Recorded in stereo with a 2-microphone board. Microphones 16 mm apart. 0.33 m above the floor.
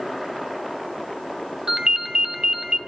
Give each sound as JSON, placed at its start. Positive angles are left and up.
{"t": 1.7, "sound": "a ringtone", "side_deg": -70, "distance_m": 0.9}